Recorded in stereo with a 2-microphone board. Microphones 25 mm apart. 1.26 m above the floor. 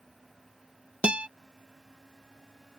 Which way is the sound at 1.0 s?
50° right (ahead or behind).